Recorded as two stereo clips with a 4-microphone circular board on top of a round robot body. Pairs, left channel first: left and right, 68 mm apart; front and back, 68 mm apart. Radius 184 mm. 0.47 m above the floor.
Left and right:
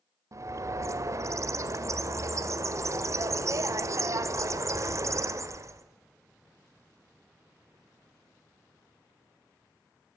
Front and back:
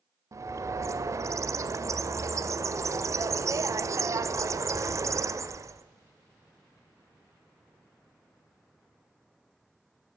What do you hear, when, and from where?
0.3 s a bird: 135° right, 0.8 m